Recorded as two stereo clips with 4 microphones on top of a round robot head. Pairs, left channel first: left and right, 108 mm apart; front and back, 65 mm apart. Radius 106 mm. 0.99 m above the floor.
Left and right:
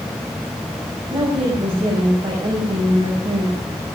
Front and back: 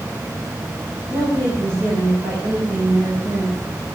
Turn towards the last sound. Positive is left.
turn(degrees=-130)